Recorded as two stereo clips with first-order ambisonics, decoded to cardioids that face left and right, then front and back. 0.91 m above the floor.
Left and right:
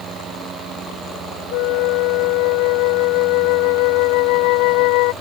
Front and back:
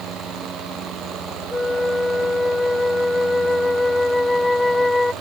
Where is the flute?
80° left.